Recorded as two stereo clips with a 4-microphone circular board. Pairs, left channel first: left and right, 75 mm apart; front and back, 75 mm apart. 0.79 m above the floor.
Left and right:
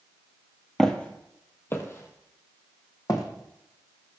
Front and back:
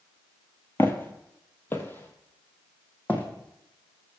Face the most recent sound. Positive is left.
turn(degrees=65)